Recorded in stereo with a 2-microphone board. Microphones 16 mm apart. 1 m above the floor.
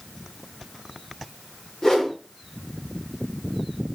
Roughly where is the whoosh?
Left.